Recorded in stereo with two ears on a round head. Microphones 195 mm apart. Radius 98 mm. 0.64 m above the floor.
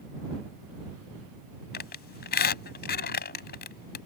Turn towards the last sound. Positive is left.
turn(degrees=45)  # may be behind; listen again after turning